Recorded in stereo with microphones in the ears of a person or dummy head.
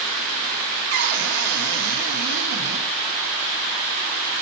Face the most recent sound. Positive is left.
turn(degrees=-55)  # may be behind; listen again after turning